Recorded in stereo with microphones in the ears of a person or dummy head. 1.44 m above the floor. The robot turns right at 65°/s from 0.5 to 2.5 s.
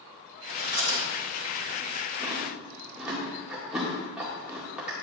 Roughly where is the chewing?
Right.